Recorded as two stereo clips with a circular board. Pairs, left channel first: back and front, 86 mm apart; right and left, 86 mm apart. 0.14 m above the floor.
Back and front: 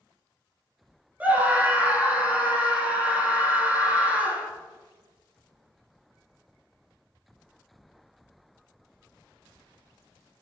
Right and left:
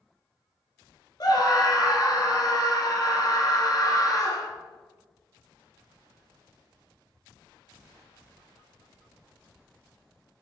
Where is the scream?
70° right, 2.0 m.